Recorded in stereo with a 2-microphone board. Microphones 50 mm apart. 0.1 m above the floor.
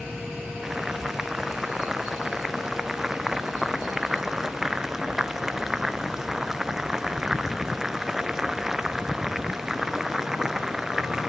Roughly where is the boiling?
Centre.